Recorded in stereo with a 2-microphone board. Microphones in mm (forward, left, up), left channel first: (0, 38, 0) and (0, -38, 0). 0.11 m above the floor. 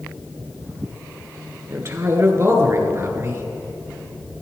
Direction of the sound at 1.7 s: 35° right (ahead or behind).